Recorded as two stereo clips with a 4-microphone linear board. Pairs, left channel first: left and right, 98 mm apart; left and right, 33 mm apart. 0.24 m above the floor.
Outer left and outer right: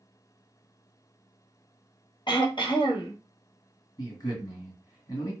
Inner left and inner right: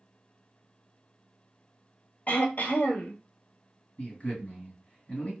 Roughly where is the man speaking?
Left.